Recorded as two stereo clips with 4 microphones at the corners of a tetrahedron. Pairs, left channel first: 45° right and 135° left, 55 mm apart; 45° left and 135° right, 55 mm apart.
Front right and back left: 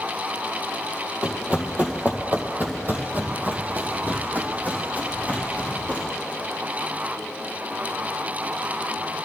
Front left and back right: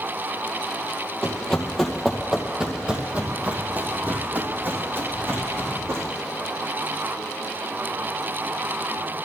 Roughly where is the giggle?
I don't hear a giggle.